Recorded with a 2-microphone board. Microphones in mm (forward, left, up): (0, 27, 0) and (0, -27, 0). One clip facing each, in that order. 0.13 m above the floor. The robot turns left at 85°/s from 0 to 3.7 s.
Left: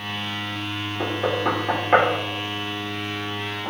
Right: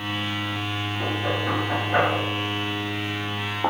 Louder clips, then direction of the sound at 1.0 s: Left 4 dB; 35° left (ahead or behind).